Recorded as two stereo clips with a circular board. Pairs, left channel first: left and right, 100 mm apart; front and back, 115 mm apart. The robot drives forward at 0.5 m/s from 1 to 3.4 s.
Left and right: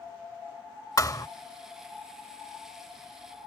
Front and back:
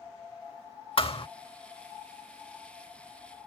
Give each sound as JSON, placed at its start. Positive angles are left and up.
{"t": 1.0, "sound": "a thud", "azimuth_deg": 35}